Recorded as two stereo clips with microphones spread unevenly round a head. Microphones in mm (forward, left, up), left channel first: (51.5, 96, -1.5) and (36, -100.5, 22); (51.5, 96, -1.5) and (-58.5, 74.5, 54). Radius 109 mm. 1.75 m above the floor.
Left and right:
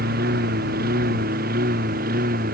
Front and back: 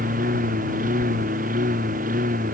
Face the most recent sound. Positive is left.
turn(degrees=-150)